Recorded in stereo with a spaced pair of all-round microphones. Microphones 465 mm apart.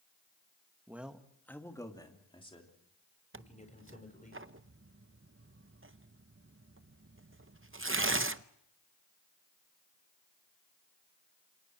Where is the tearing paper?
25° right (ahead or behind), 0.7 m.